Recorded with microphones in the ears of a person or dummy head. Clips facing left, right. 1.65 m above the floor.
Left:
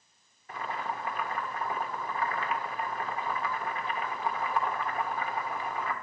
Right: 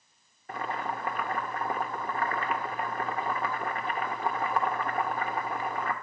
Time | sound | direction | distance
0.5 | boiling | 45° right (ahead or behind) | 0.9 m